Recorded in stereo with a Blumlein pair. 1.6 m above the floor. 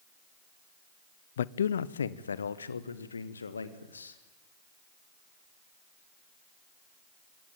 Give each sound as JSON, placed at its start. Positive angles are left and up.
{"t": 1.4, "sound": "a man speaking", "azimuth_deg": 60, "distance_m": 0.5}